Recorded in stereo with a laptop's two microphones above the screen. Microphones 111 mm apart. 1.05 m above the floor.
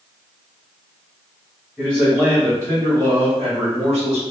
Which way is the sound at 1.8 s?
15° right (ahead or behind).